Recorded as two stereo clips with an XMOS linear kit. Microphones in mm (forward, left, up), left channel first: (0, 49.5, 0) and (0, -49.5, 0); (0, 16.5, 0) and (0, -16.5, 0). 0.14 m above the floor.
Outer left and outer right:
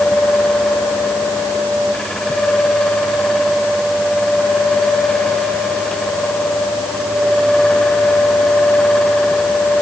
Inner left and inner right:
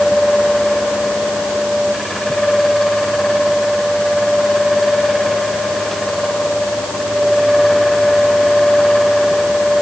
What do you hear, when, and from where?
Only background noise.